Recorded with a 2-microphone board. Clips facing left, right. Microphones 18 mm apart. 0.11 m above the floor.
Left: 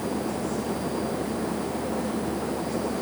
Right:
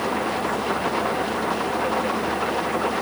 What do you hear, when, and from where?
0.0 s an engine running: 60° right (ahead or behind)